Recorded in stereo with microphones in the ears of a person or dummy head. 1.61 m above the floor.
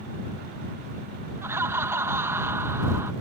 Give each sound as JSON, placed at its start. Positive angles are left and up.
{"t": 1.4, "sound": "laughter", "side_deg": -15}